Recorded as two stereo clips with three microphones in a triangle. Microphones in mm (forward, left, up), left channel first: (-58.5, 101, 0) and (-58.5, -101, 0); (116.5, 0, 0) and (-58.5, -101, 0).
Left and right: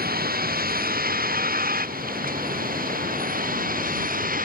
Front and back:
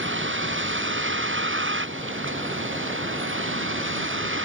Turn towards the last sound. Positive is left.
turn(degrees=-135)